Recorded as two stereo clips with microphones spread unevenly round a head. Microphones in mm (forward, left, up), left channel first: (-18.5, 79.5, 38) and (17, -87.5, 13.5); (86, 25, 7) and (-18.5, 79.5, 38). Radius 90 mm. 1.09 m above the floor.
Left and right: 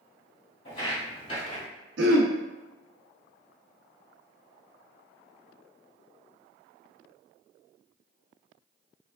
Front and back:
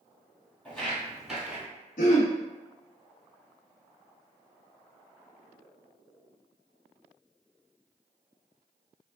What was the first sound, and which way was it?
Footsteps, 60° left.